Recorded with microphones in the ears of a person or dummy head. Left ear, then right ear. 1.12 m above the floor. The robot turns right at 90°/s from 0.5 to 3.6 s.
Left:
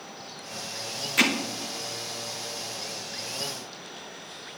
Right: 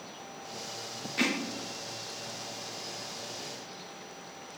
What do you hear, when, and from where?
1.2 s hammering: 35° left (ahead or behind), 0.9 m; by 1.3 s 20° left (ahead or behind), 0.9 m